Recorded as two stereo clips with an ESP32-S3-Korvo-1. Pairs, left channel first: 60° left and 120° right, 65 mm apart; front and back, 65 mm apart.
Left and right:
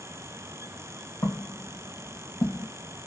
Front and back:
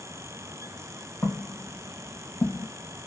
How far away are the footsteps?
About 2 m.